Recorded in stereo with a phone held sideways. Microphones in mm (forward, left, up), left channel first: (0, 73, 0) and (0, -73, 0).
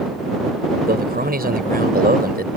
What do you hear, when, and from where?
0.9 s a man speaking: 85° right